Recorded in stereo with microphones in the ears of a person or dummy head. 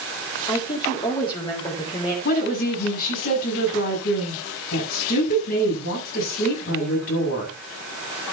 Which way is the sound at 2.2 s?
50° left (ahead or behind).